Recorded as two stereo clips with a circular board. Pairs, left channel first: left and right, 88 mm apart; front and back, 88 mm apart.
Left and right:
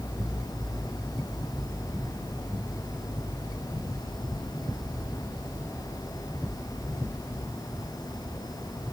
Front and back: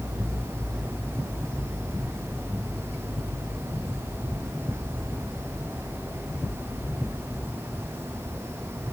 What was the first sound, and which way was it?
Only background noise.